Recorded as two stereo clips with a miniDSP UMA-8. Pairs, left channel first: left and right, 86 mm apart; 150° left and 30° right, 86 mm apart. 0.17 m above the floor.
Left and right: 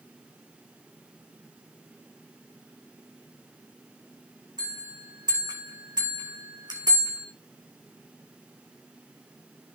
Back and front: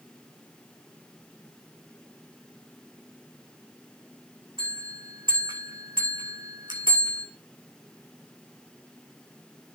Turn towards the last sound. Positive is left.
turn(degrees=-55)